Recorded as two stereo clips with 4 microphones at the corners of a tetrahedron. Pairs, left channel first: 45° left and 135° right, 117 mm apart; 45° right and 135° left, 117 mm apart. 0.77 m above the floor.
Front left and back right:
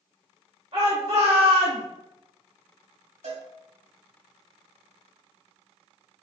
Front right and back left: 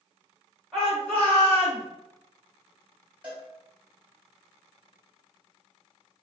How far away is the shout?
About 1.4 m.